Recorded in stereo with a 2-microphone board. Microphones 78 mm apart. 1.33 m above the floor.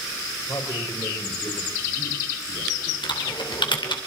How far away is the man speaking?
About 6.5 m.